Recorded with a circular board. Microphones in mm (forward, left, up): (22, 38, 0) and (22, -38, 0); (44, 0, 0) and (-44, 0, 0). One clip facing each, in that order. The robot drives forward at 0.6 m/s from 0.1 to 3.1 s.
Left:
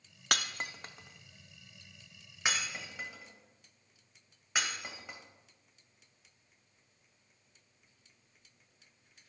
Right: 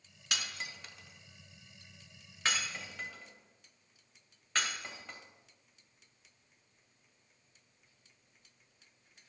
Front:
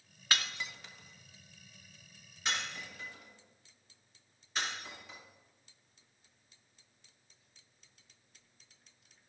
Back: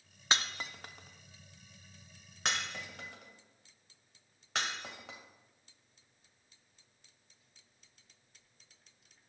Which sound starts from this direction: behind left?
Breaking glass, at 0.3 s.